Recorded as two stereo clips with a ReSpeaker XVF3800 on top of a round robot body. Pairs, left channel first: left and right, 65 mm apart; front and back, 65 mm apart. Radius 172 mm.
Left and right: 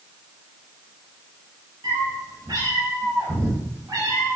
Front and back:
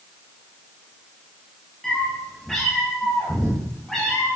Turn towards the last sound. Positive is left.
turn(degrees=-85)